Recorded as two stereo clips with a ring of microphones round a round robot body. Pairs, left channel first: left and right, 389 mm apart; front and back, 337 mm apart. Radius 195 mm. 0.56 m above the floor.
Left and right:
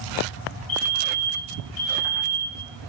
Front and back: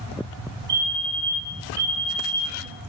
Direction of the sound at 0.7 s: 125° left.